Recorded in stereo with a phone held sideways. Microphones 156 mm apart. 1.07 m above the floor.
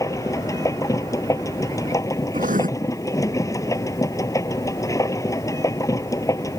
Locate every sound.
0.0 s a machine running: 20° left (ahead or behind)
2.3 s writing: 60° right (ahead or behind)